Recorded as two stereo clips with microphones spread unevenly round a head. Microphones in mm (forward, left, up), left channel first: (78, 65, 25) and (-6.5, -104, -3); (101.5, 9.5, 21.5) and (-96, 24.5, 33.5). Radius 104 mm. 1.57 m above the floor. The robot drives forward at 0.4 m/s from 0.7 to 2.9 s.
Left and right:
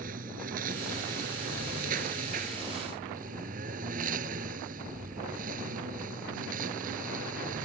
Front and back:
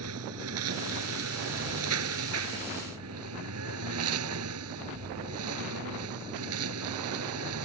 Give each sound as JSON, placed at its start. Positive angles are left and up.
{"t": 0.0, "sound": "a lawn mower", "azimuth_deg": -170}